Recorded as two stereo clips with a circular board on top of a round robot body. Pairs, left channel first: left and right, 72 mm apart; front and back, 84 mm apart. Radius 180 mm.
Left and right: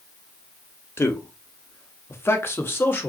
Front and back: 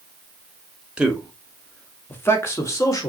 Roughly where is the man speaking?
Left.